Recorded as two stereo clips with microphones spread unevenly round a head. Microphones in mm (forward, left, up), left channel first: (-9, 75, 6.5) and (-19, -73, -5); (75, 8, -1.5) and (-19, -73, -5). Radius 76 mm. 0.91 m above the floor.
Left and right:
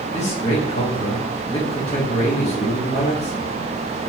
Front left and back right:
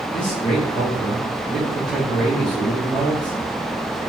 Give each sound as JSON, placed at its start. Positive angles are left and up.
{"t": 0.1, "sound": "a man speaking", "azimuth_deg": 130, "distance_m": 1.7}